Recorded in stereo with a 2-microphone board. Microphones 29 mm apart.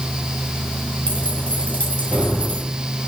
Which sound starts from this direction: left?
Keys jangling, at 1.1 s.